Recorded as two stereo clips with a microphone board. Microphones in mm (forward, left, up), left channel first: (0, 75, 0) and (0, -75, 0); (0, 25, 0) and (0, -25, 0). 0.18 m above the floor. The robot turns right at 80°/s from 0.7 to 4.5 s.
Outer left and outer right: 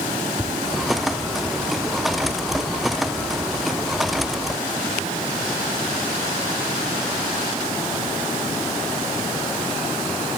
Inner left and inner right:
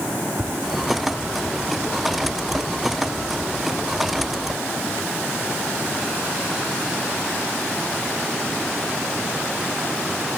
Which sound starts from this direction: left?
Tapping, at 0.4 s.